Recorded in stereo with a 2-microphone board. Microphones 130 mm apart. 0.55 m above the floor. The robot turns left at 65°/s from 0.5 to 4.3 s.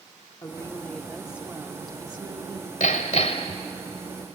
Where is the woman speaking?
45° left, 1.5 m; by 2.7 s 100° right, 1.5 m.